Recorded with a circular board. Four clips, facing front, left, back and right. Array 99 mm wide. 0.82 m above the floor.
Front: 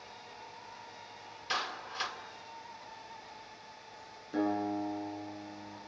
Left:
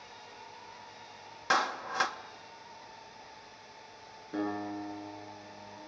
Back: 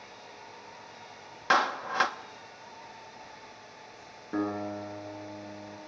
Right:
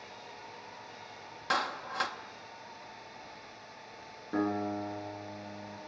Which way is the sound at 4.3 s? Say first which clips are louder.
Right 3 dB, even; 145° right.